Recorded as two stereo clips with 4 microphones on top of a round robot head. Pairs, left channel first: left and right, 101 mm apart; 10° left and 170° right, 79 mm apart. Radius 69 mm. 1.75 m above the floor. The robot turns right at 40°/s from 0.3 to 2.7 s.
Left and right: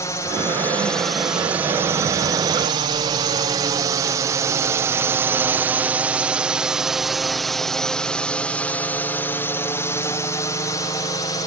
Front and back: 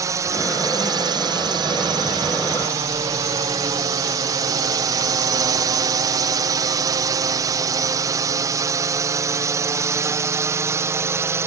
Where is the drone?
150° left; by 11.5 s 140° left.